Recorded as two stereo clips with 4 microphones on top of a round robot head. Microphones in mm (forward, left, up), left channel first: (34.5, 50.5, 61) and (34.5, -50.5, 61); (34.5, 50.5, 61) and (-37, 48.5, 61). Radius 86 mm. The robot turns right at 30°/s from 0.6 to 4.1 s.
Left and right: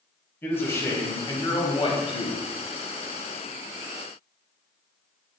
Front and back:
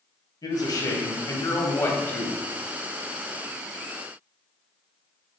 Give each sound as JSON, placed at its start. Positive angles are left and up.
{"t": 0.4, "sound": "a man speaking", "azimuth_deg": 25, "distance_m": 2.5}